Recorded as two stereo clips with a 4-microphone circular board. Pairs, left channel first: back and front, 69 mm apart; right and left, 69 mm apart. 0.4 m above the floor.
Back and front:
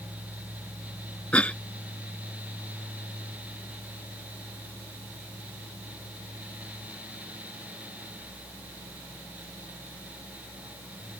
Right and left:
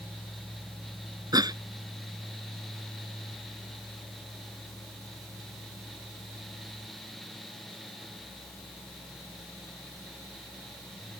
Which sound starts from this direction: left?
A cough, at 1.3 s.